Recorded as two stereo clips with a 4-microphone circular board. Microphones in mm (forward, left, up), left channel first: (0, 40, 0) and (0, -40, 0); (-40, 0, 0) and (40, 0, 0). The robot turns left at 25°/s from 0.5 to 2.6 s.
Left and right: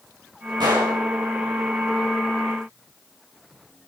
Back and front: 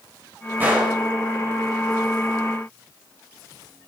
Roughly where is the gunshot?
Ahead right.